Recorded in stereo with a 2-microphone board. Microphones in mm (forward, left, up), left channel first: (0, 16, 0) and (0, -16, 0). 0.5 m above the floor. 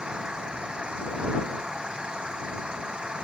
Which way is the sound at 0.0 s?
30° right (ahead or behind).